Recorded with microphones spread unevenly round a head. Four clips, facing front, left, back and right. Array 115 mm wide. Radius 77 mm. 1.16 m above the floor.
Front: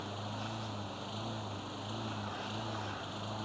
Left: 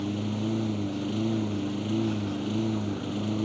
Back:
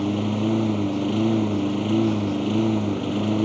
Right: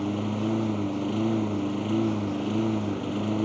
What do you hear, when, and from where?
0.0 s a lawn mower: 175° right